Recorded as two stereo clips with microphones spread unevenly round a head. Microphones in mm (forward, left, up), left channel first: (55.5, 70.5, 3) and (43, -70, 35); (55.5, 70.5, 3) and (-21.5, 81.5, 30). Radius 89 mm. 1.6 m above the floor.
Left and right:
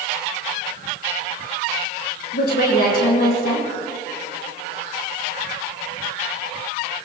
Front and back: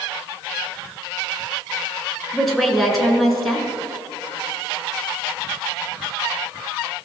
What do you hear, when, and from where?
2.3 s a woman speaking: 80° left, 7.5 m